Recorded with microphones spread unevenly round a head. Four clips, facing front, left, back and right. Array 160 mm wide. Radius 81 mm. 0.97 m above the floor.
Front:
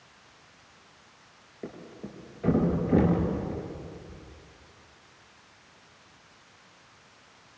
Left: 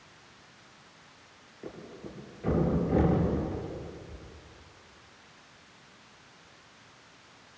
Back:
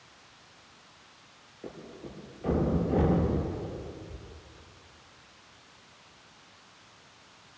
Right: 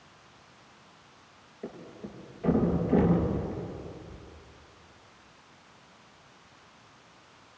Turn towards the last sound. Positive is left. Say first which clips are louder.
# right 1 dB, front 2 dB
turn(degrees=-5)